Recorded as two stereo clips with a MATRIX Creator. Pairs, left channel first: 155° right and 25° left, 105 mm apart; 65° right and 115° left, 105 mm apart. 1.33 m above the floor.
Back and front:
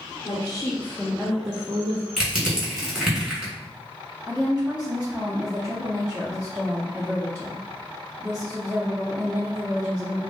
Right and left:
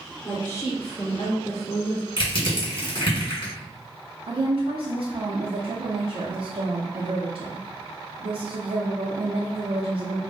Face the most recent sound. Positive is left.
turn(degrees=95)